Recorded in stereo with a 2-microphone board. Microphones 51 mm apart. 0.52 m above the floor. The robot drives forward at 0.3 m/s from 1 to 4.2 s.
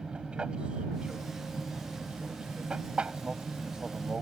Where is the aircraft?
20° right (ahead or behind).